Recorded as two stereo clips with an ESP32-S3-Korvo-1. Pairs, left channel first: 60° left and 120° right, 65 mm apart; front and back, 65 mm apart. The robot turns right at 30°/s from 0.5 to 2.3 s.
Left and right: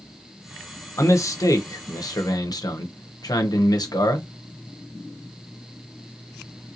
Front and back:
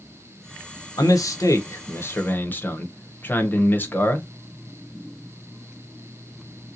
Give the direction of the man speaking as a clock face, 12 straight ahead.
11 o'clock.